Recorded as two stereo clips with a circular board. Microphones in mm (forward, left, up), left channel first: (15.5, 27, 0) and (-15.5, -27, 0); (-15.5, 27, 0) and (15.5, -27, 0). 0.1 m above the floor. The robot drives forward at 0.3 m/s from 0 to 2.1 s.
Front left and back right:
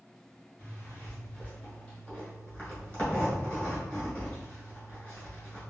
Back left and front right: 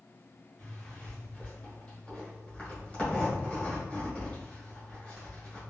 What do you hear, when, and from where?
0.6 s a zipper: 70° left, 1.5 m; by 5.6 s 105° left, 1.5 m